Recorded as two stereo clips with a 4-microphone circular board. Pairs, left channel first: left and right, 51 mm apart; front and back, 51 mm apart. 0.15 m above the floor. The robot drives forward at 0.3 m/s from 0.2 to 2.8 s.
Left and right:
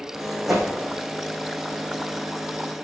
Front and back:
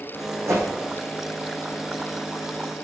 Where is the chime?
I don't hear a chime.